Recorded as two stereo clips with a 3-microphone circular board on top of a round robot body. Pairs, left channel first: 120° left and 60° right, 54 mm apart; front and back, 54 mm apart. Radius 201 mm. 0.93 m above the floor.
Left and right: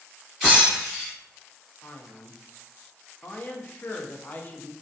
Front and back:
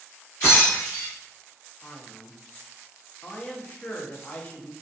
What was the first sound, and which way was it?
Breaking glass, 10° left.